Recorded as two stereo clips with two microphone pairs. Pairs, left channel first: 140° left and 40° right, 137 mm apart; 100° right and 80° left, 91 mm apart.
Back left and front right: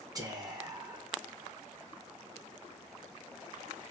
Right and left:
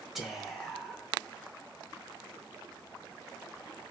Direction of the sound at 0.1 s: 5° right.